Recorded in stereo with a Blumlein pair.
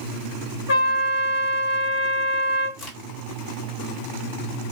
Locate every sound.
0.7 s a trumpet: 65° left, 1.9 m
2.8 s a crack: 35° left, 1.3 m